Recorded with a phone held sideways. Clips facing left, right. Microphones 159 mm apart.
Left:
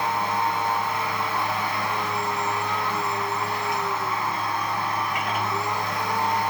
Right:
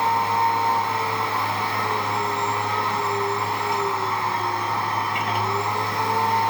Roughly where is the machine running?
Right.